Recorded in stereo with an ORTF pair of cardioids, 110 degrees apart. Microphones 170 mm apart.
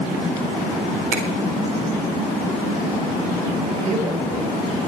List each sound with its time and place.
1.1 s a finger snap: 70° right, 3.5 m
3.8 s a man speaking: 45° right, 4.5 m